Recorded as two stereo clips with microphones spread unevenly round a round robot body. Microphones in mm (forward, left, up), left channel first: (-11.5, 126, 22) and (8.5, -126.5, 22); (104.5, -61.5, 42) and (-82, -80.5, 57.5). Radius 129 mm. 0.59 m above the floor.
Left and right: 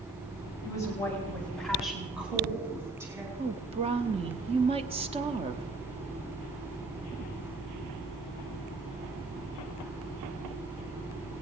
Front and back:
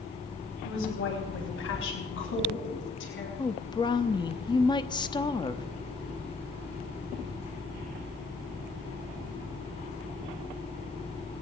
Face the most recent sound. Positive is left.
turn(degrees=-35)